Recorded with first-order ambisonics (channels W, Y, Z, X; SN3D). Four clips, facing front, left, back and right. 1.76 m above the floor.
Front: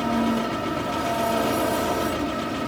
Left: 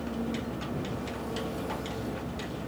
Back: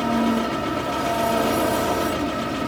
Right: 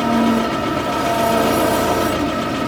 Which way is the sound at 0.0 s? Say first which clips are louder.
Right 18 dB, back 2 dB; 100° right.